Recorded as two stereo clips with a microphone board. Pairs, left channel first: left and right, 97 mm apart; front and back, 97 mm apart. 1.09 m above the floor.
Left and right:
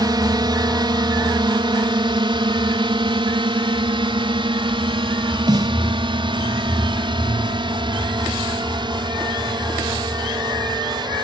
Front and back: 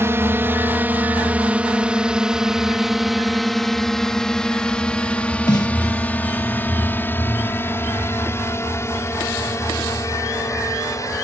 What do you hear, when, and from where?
0.0 s a drone: 120° right; by 11.2 s 55° right
5.5 s a snare drum: 45° right